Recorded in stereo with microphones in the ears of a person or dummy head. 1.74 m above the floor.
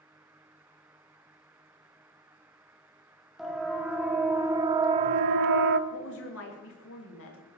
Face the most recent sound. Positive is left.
turn(degrees=85)